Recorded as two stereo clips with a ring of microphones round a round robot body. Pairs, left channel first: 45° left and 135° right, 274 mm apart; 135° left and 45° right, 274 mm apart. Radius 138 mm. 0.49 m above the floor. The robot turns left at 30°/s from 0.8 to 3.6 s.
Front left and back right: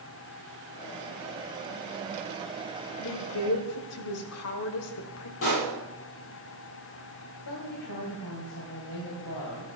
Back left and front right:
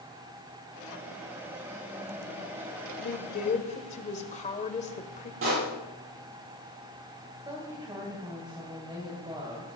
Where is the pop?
Straight ahead, 8 m.